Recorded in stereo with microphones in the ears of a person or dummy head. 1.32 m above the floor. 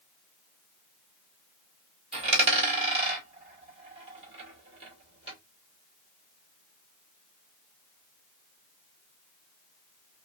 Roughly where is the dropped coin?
Right.